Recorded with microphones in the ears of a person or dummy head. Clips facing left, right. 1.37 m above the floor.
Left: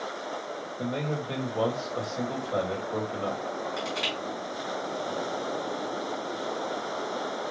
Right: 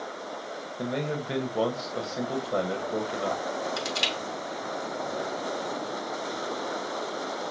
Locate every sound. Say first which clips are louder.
0.8 s a man speaking: right 1 dB; 20° right (ahead or behind), 1.1 m
3.8 s crushing: even; 55° right (ahead or behind), 2.5 m